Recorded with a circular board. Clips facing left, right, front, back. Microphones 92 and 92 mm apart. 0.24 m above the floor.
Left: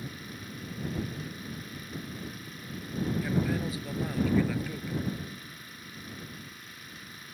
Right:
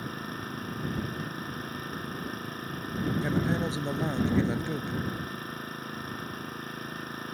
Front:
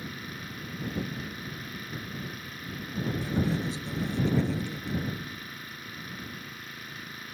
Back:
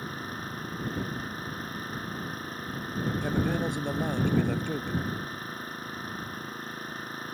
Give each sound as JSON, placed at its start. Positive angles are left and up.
{"t": 0.0, "sound": "an engine running", "azimuth_deg": -130}
{"t": 3.2, "sound": "a man speaking", "azimuth_deg": -150}